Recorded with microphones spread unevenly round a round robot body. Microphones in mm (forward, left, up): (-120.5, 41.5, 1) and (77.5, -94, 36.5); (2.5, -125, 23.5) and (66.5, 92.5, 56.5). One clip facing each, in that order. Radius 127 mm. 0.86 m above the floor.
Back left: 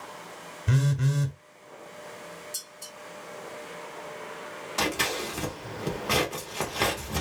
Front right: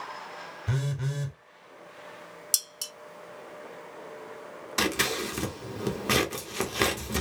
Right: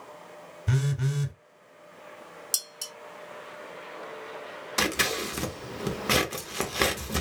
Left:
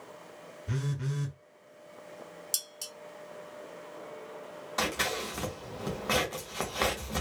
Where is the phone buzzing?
135° right, 0.9 m.